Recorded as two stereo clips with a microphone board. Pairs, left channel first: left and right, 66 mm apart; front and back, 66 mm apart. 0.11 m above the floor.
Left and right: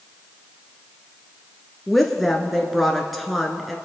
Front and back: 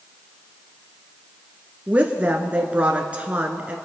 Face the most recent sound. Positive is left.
turn(degrees=175)